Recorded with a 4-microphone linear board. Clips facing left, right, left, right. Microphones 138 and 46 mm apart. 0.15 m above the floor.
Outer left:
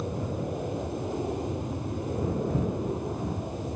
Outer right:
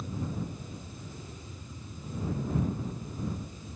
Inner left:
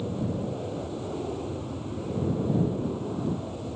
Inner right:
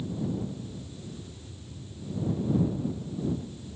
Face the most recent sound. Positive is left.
turn(degrees=70)  # may be behind; listen again after turning